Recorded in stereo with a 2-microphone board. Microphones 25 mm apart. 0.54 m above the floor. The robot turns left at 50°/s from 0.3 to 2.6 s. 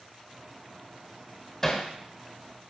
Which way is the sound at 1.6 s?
20° left (ahead or behind).